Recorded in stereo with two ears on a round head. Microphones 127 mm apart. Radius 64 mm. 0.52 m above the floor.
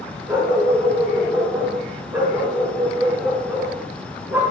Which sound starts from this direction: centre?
A dog barking, at 0.3 s.